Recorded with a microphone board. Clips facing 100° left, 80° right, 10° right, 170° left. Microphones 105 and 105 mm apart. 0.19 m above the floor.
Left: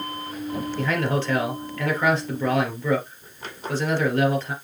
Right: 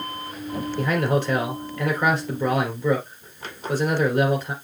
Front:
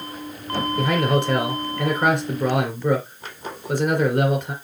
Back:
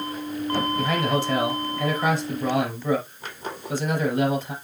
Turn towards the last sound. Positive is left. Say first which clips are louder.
# right 3 dB, front 3 dB
turn(degrees=-5)